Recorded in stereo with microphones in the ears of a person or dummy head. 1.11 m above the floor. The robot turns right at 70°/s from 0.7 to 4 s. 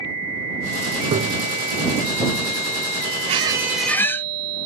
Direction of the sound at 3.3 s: 40° right.